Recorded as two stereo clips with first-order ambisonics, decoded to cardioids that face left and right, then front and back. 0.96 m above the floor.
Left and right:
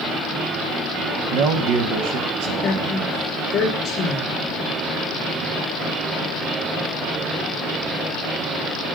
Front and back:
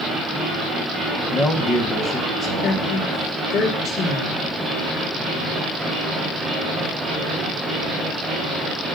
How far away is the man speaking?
About 1.2 m.